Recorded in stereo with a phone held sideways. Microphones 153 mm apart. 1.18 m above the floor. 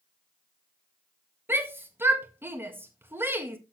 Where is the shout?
15° right (ahead or behind), 1.6 m.